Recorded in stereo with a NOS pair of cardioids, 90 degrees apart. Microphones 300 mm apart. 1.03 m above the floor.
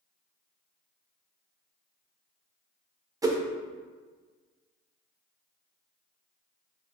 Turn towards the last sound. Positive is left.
turn(degrees=-15)